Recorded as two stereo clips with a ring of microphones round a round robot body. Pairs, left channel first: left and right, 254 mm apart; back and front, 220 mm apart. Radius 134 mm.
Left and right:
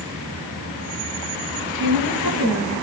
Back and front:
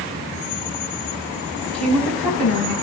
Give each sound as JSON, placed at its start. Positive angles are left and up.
{"t": 1.7, "sound": "a woman speaking", "azimuth_deg": 120, "distance_m": 4.0}